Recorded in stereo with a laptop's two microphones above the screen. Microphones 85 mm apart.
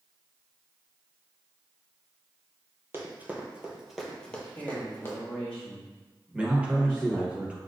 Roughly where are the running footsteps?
Right.